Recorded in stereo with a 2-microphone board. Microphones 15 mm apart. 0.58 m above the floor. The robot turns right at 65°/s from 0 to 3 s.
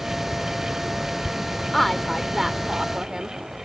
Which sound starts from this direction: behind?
A woman speaking, at 1.7 s.